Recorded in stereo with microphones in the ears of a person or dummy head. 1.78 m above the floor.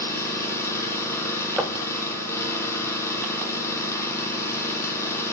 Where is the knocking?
5° right (ahead or behind), 1.2 m.